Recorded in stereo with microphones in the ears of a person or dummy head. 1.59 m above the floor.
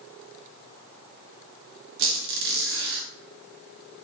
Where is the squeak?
55° right (ahead or behind), 1.4 m.